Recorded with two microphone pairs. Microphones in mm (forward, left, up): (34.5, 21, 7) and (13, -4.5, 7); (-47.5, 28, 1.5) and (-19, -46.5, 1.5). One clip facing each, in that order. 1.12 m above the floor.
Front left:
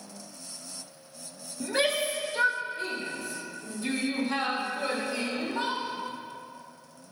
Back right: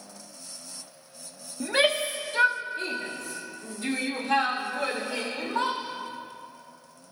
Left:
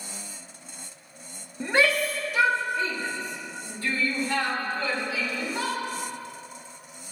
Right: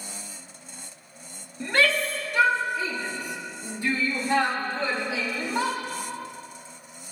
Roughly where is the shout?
Behind.